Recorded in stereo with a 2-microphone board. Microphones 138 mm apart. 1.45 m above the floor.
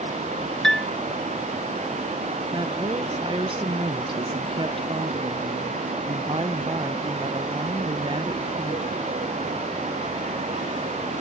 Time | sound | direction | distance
0.6 | a piano | 5° left (ahead or behind) | ?
2.5 | a woman speaking | 40° right (ahead or behind) | ?